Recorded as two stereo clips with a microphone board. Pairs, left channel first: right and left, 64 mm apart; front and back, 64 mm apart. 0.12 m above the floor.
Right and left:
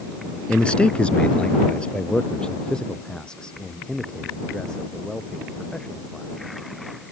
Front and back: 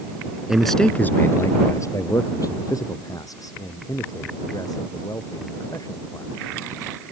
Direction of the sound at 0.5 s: 125° right.